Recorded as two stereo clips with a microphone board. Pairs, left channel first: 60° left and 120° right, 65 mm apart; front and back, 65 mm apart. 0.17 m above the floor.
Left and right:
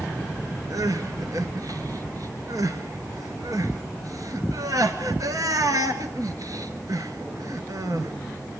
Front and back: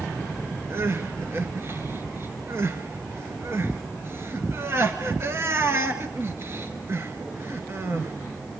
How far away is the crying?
About 1.6 m.